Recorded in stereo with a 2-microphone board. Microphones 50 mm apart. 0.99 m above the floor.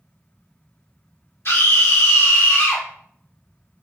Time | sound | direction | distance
1.4 | a scream | 60° left (ahead or behind) | 1.2 m